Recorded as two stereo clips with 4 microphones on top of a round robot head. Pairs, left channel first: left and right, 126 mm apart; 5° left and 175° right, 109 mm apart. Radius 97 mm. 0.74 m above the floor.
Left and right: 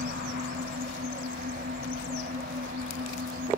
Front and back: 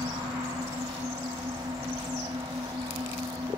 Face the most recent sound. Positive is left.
turn(degrees=-110)